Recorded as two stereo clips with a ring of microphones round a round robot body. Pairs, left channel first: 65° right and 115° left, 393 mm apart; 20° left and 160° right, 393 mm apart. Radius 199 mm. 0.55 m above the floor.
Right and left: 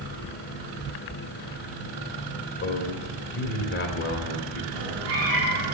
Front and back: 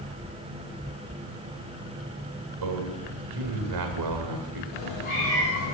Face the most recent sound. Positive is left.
turn(degrees=55)